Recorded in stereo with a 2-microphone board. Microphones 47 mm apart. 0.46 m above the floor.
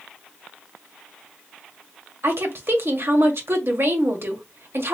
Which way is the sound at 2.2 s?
60° right (ahead or behind).